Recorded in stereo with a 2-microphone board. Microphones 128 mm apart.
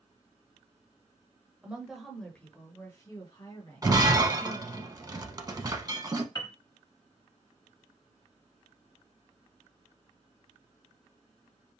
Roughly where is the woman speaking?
Centre.